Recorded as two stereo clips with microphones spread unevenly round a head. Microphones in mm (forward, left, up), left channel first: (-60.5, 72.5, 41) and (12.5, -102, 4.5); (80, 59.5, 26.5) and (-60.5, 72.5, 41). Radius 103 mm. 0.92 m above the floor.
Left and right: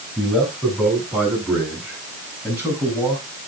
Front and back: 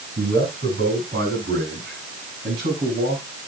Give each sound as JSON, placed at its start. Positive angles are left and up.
{"t": 0.2, "sound": "a man speaking", "azimuth_deg": -155, "distance_m": 9.0}